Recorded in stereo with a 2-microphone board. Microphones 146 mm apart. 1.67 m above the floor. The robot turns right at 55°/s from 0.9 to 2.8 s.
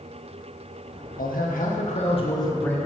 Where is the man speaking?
85° left, 1.8 m; by 2.8 s 170° left, 1.8 m.